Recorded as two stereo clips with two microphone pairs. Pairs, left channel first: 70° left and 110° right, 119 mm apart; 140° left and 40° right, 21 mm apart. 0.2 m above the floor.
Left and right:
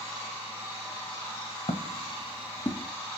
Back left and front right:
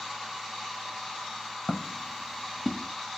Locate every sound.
1.7 s footsteps: 80° left, 1.1 m; by 2.9 s 5° left, 1.3 m